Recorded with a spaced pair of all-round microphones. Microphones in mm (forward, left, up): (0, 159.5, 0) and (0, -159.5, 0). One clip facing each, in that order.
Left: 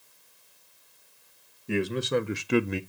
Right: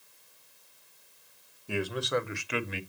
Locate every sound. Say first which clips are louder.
1.7 s a man speaking: left 4 dB; 25° left (ahead or behind), 1.5 m; by 2.8 s 55° left (ahead or behind), 0.8 m